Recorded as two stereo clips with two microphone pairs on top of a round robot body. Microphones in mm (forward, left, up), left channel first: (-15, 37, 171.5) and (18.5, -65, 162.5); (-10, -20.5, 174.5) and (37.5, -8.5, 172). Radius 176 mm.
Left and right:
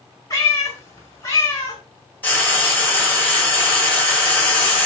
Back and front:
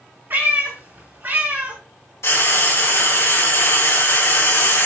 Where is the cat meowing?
50° left, 3.5 m.